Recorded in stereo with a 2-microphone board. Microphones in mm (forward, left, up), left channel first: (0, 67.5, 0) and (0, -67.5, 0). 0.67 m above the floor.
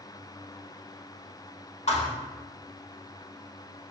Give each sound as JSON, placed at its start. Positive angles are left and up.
{"t": 1.9, "sound": "a thud", "side_deg": 55, "distance_m": 1.0}